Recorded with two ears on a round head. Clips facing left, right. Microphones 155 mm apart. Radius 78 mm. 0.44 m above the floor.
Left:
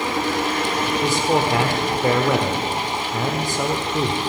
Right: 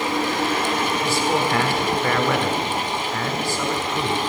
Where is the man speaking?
15° left (ahead or behind), 1.1 m.